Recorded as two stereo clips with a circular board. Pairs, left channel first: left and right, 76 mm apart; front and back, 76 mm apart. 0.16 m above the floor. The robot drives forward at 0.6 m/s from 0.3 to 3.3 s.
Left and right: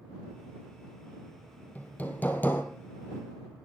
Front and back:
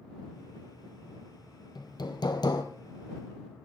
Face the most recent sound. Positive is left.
turn(degrees=30)